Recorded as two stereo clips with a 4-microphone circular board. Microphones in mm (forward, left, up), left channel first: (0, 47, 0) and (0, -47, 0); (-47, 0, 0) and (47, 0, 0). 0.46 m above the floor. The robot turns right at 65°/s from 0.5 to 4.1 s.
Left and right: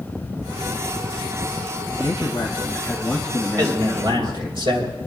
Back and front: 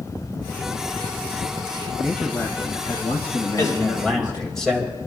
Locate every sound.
2.0 s a man speaking: 90° left, 2.0 m; by 4.6 s 135° right, 2.0 m
3.6 s a man speaking: 130° right, 3 m; by 5.0 s 95° right, 3 m